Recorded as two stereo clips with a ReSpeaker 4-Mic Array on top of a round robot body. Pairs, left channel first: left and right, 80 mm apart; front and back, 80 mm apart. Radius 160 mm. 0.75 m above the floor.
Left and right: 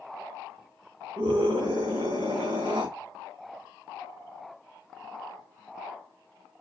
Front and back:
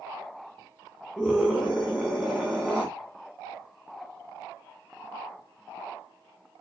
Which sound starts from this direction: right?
A scream, at 1.2 s.